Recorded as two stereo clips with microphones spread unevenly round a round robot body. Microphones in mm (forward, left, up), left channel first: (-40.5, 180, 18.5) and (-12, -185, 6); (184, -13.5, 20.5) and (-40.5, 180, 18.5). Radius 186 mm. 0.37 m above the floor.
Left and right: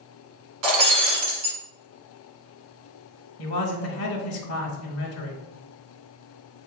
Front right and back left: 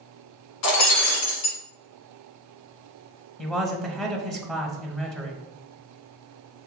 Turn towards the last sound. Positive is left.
turn(degrees=45)